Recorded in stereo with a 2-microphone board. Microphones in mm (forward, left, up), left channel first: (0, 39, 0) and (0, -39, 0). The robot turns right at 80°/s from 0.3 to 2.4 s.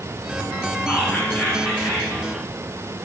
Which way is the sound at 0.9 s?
20° left (ahead or behind).